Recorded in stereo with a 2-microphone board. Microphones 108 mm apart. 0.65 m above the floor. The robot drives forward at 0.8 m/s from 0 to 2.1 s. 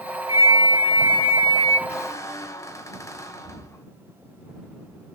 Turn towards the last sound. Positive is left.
turn(degrees=30)  # may be behind; listen again after turning